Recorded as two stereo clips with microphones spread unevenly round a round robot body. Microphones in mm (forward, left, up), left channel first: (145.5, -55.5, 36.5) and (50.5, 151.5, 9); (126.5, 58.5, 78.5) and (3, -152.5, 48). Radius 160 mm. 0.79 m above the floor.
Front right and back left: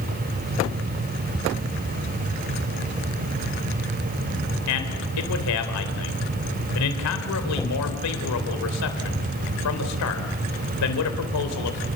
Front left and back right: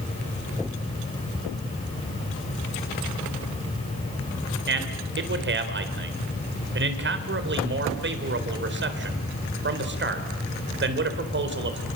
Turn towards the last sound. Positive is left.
turn(degrees=-80)